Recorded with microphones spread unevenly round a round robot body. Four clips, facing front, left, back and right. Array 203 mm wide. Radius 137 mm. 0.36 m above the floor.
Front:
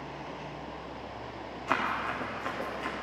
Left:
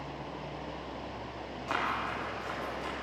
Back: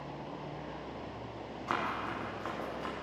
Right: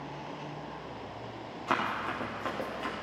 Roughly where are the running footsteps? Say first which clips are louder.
Right 2 dB, front 4 dB; behind right.